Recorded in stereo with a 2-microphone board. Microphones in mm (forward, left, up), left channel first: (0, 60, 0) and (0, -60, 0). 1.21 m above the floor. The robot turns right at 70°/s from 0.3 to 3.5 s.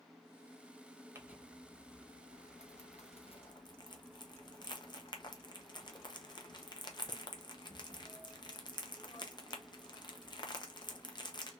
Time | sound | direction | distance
1.1 | crumpling | 25° right (ahead or behind) | 0.6 m